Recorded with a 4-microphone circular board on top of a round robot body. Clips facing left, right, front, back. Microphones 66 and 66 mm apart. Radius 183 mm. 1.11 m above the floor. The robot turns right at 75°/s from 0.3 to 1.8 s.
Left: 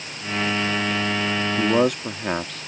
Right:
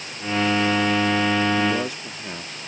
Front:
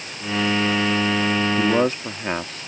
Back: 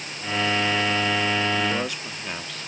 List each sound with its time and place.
1.6 s a man speaking: 40° left; by 2.7 s 55° left